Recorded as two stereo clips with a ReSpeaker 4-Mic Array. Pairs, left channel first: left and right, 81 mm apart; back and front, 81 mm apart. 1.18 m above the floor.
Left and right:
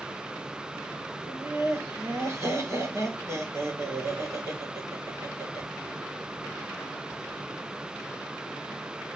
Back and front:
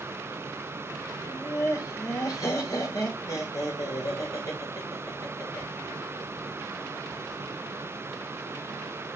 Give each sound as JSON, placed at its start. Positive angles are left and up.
{"t": 1.3, "sound": "laughter", "azimuth_deg": -140, "distance_m": 3.0}